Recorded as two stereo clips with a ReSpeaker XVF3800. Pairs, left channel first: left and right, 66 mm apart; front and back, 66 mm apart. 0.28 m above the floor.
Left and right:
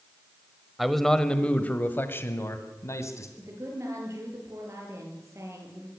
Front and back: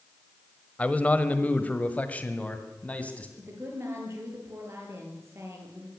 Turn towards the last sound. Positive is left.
turn(degrees=-130)